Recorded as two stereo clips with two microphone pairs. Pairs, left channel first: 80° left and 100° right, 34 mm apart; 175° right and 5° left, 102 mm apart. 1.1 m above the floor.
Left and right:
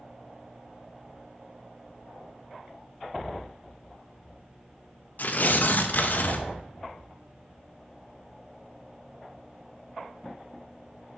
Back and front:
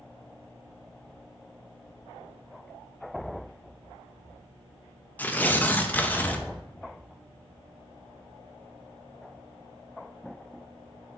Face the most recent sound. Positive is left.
turn(degrees=105)